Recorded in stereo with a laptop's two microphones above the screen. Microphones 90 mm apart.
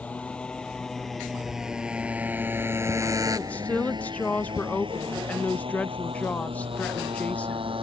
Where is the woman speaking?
15° left (ahead or behind).